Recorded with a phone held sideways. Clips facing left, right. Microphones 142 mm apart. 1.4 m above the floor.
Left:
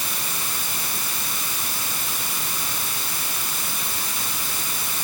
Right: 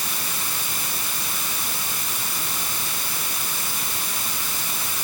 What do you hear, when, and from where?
Only background noise.